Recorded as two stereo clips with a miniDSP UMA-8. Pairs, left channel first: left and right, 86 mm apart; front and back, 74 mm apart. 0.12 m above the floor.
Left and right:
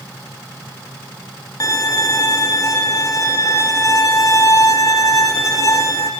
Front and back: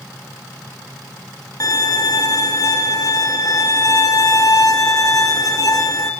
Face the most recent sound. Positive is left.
turn(degrees=40)